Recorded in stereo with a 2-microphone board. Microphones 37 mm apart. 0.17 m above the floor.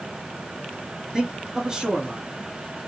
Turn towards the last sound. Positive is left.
turn(degrees=-20)  # may be behind; listen again after turning